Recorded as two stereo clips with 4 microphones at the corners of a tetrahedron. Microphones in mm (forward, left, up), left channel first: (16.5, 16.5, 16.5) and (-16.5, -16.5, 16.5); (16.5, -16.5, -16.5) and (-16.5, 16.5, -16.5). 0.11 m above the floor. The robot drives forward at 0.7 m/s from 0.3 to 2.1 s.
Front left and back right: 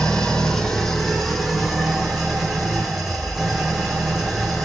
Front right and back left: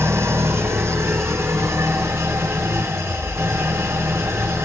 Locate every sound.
0.0 s an engine running: 125° left, 2 m; by 4.7 s 145° left, 3 m